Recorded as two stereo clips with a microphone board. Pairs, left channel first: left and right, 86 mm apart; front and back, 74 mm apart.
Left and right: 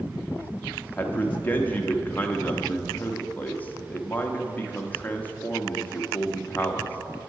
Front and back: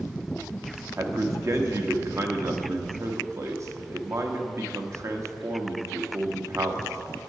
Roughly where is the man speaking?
Behind left.